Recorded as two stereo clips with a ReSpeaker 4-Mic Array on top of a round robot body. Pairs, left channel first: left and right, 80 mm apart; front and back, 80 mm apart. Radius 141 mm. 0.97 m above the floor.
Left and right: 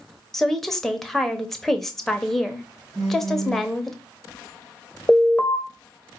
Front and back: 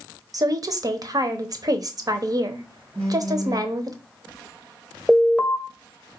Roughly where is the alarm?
Left.